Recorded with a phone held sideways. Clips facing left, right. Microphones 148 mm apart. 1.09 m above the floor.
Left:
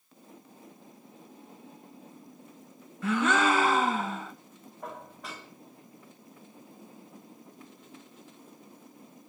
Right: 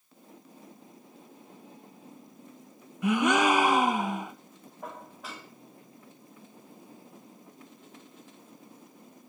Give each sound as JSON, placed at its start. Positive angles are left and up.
{"t": 3.0, "sound": "a gasp", "side_deg": -15, "distance_m": 0.6}
{"t": 4.8, "sound": "dishes clattering", "side_deg": 0, "distance_m": 1.8}